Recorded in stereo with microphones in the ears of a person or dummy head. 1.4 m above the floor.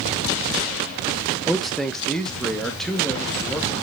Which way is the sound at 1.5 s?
Centre (ahead or behind).